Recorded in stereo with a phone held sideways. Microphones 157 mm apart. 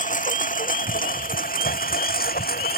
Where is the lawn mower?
55° left (ahead or behind); by 2.8 s 75° left (ahead or behind).